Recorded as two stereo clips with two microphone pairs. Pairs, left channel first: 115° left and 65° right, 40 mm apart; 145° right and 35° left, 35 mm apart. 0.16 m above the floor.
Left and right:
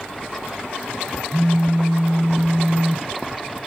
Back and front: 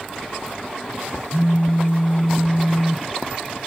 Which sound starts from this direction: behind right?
A phone buzzing, at 1.3 s.